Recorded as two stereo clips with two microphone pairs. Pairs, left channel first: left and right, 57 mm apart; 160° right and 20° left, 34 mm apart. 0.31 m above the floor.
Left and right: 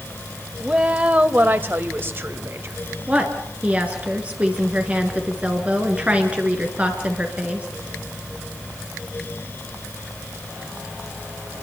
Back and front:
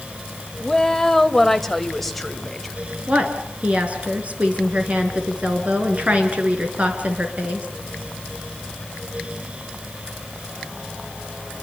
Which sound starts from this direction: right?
A woman speaking, at 0.6 s.